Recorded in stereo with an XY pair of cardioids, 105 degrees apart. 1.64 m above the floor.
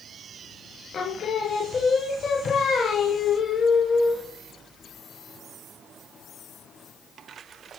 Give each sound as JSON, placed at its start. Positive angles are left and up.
{"t": 0.9, "sound": "singing", "azimuth_deg": 50, "distance_m": 0.6}